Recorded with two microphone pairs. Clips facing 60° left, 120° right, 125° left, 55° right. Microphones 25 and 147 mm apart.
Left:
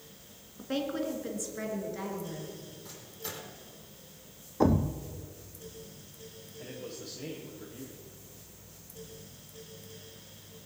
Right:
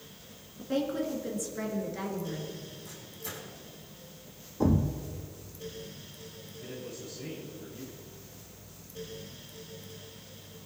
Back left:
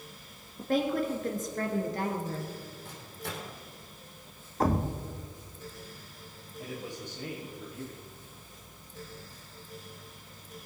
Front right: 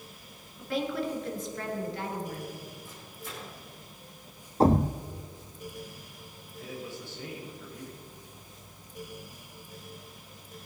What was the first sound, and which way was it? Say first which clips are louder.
A woman speaking: right 2 dB, back left 3 dB; 115° left.